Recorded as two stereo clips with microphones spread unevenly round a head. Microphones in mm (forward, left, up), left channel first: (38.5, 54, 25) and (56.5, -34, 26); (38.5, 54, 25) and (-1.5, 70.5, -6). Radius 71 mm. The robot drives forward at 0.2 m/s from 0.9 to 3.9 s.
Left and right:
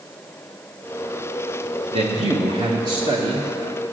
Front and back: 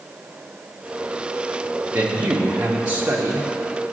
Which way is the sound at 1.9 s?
130° right.